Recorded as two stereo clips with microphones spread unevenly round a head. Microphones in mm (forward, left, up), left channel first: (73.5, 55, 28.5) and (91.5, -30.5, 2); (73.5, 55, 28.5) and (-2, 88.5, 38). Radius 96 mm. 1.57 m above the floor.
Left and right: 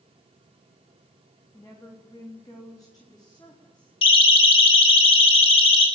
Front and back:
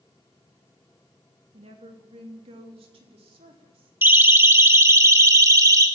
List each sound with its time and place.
1.5 s a woman speaking: straight behind, 3 m; by 3.9 s 170° left, 4 m
4.0 s a siren: 95° left, 3.5 m; by 5.9 s 110° left, 3.5 m